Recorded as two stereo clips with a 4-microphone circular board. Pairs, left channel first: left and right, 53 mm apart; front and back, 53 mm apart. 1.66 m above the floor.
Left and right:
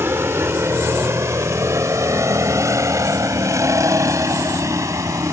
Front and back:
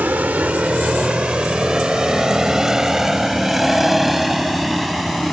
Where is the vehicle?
125° right; by 5.3 s 90° right.